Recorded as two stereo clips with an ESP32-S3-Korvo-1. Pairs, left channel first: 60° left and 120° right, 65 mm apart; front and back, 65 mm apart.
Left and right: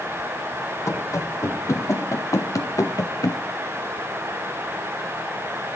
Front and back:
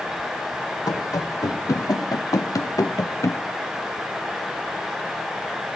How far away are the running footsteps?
About 2 m.